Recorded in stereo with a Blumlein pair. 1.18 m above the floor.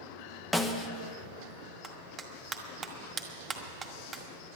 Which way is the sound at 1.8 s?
20° right.